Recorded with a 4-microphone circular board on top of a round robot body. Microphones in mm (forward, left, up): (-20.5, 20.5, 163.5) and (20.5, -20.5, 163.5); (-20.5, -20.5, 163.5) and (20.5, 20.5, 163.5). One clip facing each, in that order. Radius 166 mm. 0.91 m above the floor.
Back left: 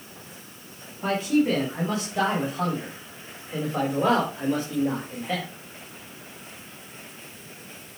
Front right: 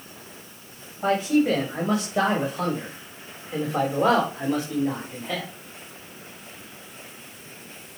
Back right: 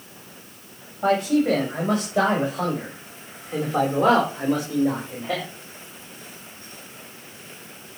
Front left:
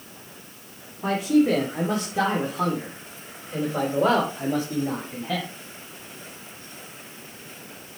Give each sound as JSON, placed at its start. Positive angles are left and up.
{"t": 1.0, "sound": "a man speaking", "azimuth_deg": -115, "distance_m": 5.5}